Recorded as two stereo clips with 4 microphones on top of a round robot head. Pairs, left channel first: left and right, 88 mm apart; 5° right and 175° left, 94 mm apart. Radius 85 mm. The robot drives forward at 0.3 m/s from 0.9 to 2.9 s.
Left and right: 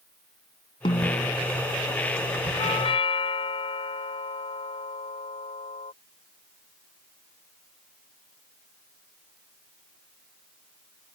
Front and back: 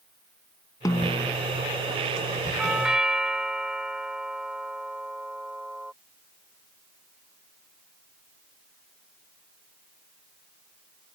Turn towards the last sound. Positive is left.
turn(degrees=90)